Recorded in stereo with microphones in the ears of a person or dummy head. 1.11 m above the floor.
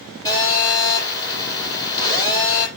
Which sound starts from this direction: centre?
A phone buzzing, at 0.2 s.